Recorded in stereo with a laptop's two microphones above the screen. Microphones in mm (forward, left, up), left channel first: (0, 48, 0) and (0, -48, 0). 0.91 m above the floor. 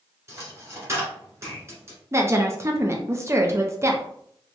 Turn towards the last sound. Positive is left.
turn(degrees=-30)  # may be behind; listen again after turning